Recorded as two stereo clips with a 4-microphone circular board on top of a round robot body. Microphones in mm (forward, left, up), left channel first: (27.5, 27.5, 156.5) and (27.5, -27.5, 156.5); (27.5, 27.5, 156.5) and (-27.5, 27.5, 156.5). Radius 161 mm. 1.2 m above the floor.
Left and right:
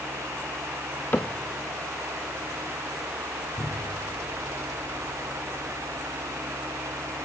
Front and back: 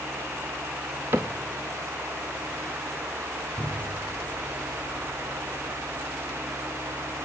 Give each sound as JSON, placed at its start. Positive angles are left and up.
{"t": 1.1, "sound": "a cupboard door", "azimuth_deg": 150, "distance_m": 0.6}
{"t": 3.6, "sound": "a cupboard door", "azimuth_deg": 95, "distance_m": 6.0}